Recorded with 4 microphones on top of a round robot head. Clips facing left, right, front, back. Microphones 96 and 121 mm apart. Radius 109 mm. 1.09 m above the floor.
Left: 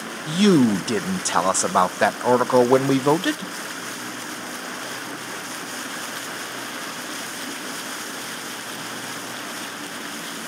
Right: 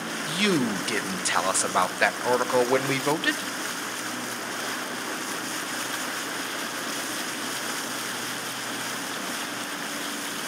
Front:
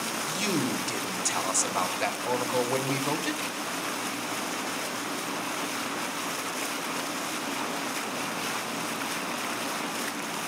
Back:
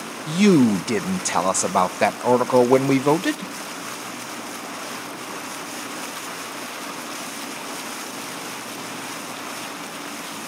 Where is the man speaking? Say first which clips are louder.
Left 9 dB, back 15 dB; 150° left, 0.7 m.